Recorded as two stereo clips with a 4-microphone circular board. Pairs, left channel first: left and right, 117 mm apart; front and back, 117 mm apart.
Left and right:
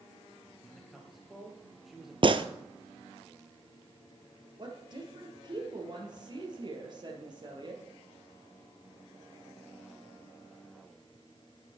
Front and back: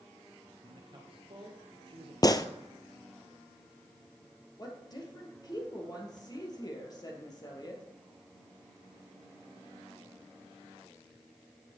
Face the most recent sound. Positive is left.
turn(degrees=-50)